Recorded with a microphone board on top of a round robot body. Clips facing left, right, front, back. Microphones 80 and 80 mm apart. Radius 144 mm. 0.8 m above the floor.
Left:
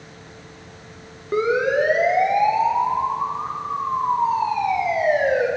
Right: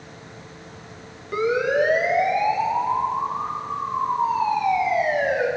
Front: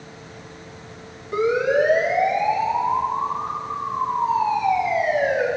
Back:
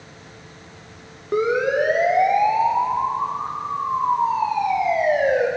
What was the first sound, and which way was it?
A siren, 145° left.